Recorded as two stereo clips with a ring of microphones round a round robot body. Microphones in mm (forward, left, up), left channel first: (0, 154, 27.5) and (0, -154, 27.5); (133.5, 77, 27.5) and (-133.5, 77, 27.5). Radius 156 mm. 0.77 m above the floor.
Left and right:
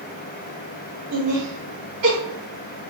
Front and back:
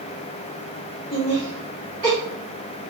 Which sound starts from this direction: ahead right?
Laughter, at 1.1 s.